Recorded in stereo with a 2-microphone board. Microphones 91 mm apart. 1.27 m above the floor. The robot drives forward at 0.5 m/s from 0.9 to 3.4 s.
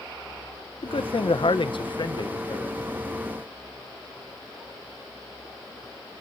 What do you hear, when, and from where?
0.8 s a man speaking: 75° left (ahead or behind), 1.0 m; by 2.8 s 45° left (ahead or behind), 1.3 m